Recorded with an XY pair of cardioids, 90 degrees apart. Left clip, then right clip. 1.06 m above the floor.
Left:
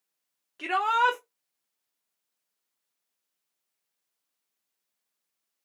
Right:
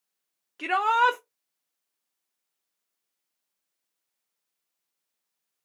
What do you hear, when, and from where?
0.6 s a shout: 25° right, 0.5 m